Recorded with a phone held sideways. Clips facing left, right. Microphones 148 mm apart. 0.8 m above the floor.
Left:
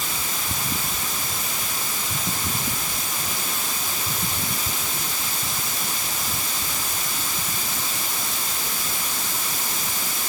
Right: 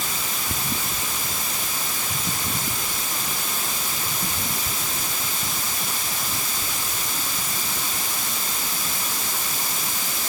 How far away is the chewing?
I don't hear chewing.